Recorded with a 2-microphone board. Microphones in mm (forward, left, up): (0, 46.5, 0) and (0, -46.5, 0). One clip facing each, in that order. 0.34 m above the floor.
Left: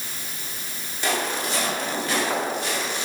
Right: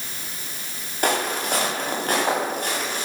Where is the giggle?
No giggle in this recording.